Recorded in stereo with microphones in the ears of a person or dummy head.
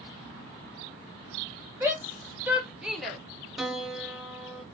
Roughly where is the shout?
Centre.